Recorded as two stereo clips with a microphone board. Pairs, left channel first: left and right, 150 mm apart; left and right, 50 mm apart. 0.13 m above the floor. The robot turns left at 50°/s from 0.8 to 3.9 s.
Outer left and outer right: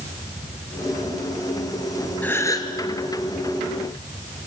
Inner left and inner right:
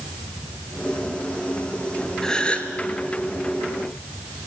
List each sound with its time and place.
2.2 s a gasp: 10° left (ahead or behind), 1.4 m; by 2.7 s 30° left (ahead or behind), 1.4 m